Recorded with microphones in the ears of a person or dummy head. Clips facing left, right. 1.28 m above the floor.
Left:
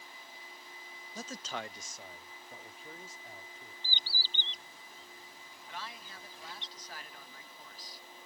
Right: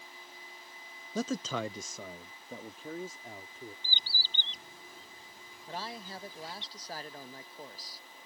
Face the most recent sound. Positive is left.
turn(degrees=-35)  # may be behind; listen again after turning